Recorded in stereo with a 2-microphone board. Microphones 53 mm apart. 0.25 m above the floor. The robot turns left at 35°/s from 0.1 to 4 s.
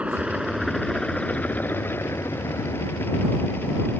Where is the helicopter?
20° right (ahead or behind); by 4.0 s 45° left (ahead or behind).